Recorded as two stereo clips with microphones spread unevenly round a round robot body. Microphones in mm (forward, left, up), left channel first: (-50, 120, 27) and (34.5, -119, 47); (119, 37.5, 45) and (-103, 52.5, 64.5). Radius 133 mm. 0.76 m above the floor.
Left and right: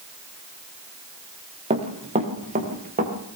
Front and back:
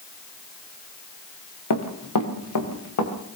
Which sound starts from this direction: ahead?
Running footsteps, at 1.7 s.